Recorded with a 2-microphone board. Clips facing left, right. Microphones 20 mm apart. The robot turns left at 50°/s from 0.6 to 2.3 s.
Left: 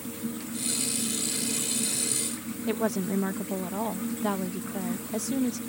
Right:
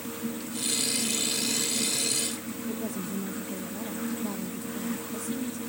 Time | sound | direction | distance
2.7 | a woman speaking | 80° left | ?